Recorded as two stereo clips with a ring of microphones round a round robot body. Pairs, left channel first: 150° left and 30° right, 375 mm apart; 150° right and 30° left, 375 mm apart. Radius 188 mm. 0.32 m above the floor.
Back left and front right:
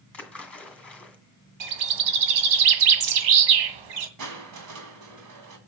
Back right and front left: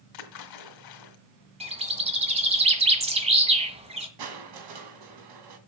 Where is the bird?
45° right, 1.7 m.